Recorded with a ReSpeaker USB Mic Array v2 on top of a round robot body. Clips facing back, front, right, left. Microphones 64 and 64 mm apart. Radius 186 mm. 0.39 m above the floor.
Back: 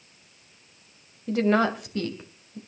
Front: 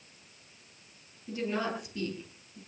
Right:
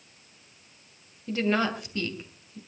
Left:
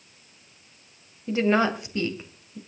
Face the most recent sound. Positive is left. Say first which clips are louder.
# back 11 dB, left 4 dB
turn(degrees=155)